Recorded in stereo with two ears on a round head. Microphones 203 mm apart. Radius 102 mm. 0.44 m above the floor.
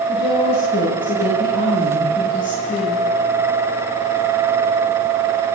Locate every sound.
0.1 s a woman speaking: 40° left (ahead or behind), 8.5 m; by 3.0 s 35° left (ahead or behind), 11.5 m